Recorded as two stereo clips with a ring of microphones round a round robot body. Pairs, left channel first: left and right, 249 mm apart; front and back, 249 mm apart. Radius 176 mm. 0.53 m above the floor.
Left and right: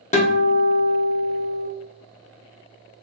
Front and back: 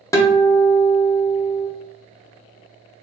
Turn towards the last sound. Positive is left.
turn(degrees=65)